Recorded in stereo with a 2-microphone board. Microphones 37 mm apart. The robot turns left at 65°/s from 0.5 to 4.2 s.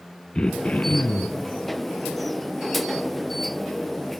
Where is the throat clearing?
150° left, 0.6 m; by 1.4 s 90° left, 0.6 m.